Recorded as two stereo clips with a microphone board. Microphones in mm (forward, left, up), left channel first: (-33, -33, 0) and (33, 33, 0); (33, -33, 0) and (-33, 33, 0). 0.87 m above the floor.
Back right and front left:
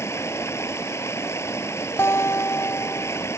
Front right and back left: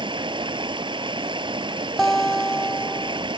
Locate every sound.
0.0 s running water: 165° left
2.0 s a guitar: 130° right